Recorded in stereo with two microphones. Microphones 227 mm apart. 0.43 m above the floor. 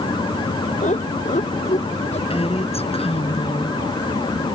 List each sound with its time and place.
0.8 s laughter: 30° left (ahead or behind)
2.3 s a woman speaking: 25° left (ahead or behind)